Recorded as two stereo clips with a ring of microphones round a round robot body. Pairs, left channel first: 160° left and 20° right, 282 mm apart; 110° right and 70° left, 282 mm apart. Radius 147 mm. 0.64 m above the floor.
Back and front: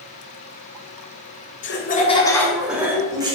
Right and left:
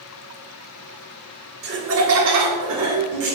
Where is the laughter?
115° left, 1.4 m; by 3.4 s 50° left, 2.5 m.